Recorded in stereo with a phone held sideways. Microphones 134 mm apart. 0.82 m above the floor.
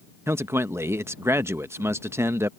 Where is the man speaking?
20° right (ahead or behind).